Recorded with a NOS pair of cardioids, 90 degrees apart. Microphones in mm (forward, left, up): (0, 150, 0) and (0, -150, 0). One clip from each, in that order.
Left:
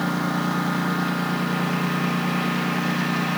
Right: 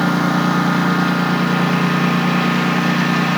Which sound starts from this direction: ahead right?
A lawn mower, at 0.0 s.